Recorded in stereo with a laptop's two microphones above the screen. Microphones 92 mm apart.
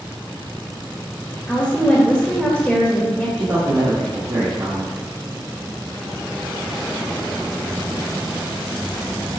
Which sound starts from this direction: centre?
A woman speaking, at 1.5 s.